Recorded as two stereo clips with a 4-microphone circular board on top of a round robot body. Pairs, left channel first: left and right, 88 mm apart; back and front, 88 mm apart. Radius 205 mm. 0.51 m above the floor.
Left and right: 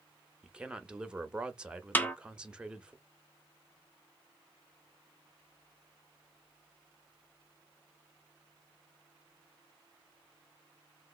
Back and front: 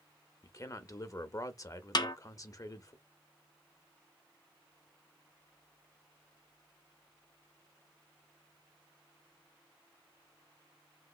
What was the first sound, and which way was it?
A man speaking, 165° right.